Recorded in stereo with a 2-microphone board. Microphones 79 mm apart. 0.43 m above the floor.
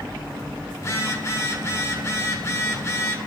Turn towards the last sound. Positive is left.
turn(degrees=35)  # may be behind; listen again after turning